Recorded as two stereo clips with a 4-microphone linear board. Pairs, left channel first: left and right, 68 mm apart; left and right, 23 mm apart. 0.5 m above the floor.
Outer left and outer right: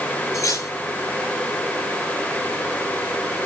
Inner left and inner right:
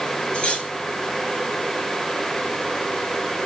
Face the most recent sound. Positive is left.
turn(degrees=60)  # may be behind; listen again after turning